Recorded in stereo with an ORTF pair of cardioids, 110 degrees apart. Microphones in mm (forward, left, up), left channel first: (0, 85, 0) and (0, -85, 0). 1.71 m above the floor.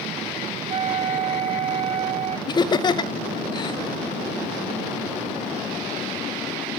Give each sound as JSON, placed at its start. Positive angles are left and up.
{"t": 0.7, "sound": "a flute", "azimuth_deg": -35, "distance_m": 0.7}
{"t": 2.5, "sound": "laughter", "azimuth_deg": 25, "distance_m": 0.5}